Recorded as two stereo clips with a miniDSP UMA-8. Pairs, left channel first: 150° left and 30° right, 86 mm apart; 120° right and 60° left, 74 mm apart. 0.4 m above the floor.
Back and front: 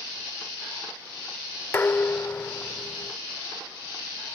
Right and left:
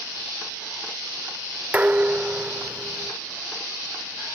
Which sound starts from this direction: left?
Dishes clattering, at 1.7 s.